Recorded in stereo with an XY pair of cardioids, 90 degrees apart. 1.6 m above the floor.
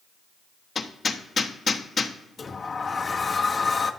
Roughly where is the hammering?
Ahead left.